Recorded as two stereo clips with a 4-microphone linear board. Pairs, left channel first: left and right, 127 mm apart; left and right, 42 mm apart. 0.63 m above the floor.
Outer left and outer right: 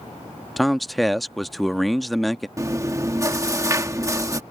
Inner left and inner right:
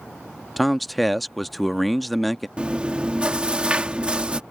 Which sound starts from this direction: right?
Chewing, at 2.6 s.